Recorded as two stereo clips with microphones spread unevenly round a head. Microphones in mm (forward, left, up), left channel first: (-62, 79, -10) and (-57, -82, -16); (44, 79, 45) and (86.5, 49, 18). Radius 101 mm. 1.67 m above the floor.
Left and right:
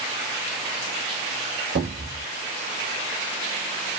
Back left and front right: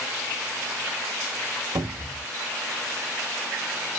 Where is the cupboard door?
50° right, 1.6 m.